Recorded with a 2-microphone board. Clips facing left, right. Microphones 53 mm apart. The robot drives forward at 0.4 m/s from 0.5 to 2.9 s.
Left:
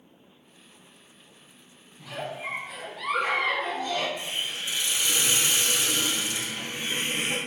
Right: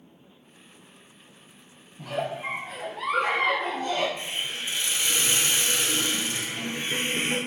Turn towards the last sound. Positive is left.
turn(degrees=-35)  # may be behind; listen again after turning